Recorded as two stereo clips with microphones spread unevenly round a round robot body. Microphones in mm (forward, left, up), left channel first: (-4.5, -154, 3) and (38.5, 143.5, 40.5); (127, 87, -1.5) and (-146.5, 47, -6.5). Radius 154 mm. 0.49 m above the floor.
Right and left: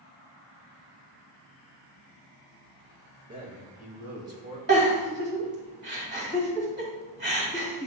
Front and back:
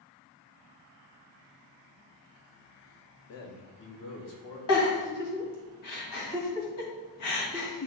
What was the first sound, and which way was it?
A man speaking, 15° left.